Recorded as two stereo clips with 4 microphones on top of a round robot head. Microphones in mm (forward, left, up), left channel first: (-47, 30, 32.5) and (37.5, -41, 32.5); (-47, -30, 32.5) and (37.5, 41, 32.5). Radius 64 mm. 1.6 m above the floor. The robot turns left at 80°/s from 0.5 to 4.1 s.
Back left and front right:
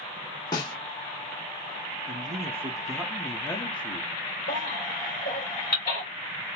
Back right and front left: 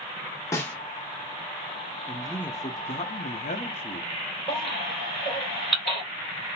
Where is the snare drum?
175° left, 1.0 m; by 0.8 s 155° left, 1.0 m.